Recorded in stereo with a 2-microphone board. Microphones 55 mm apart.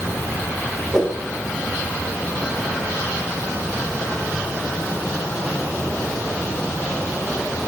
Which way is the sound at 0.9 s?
10° right (ahead or behind).